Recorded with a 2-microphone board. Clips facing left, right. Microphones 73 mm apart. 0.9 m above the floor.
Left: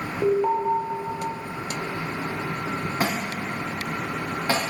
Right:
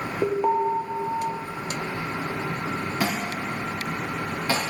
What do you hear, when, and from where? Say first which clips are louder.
0.2 s an alarm: left 1 dB; 10° right (ahead or behind), 1.2 m
3.0 s a thud: even; 40° left (ahead or behind), 4.5 m